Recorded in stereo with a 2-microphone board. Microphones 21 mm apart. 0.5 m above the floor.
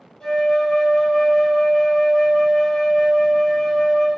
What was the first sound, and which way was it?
A flute, 30° left (ahead or behind).